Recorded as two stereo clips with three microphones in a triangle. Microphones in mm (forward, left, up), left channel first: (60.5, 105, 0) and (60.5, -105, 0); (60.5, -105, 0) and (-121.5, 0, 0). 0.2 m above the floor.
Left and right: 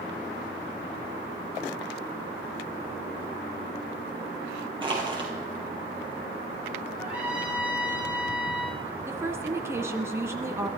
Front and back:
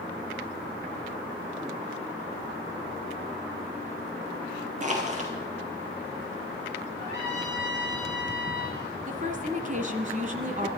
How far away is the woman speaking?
About 1.7 m.